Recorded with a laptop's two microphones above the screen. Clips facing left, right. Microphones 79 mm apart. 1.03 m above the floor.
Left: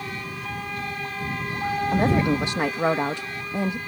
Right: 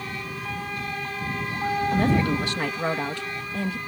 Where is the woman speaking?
20° left (ahead or behind).